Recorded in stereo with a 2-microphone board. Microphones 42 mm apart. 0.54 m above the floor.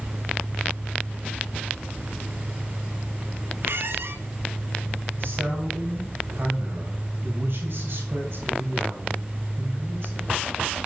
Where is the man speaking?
65° right (ahead or behind), 3 m.